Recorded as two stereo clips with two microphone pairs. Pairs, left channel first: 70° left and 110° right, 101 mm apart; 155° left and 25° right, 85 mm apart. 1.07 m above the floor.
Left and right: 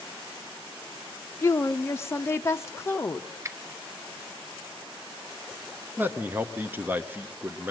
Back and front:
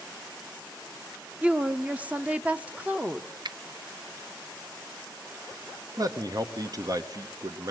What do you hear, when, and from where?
1.4 s a woman speaking: 30° left, 0.6 m
3.5 s a finger snap: 50° right, 0.6 m
6.0 s a man speaking: 50° right, 0.9 m